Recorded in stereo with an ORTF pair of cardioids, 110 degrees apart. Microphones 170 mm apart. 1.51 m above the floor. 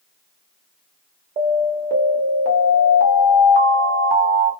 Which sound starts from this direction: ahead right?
An alarm, at 1.4 s.